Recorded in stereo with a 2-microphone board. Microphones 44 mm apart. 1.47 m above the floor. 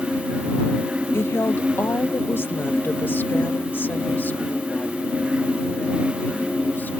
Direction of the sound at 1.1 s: 70° left (ahead or behind).